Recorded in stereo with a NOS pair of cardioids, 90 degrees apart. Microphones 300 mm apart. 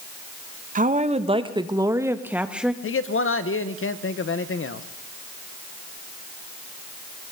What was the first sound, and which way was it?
A woman speaking, 30° right.